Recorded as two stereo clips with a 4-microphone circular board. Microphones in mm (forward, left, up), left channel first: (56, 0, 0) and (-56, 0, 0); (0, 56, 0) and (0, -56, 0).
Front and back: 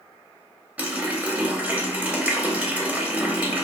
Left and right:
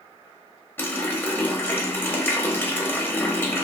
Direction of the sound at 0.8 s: 125° left.